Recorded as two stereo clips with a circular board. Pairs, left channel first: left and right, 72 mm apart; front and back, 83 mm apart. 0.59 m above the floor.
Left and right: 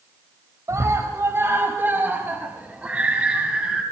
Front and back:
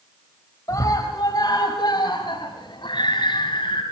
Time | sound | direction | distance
0.7 | a scream | 45° right | 3 m